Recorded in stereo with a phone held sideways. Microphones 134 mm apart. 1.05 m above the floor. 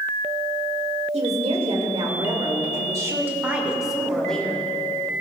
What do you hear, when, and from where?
1.1 s a woman speaking: 55° right (ahead or behind), 2 m; by 4.6 s 10° left (ahead or behind), 1.8 m